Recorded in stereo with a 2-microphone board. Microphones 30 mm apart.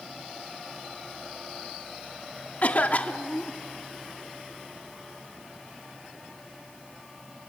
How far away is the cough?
About 1.3 m.